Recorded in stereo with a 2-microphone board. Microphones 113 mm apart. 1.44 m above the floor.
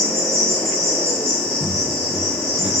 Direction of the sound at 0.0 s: 25° left (ahead or behind).